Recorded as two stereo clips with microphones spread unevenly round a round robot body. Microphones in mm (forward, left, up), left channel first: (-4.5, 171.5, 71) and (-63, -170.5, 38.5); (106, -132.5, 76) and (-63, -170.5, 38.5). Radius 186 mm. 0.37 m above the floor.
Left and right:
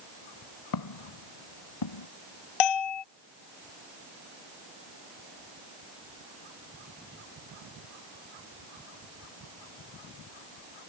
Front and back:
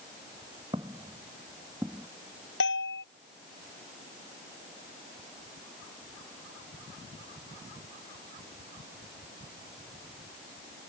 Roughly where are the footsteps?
Left.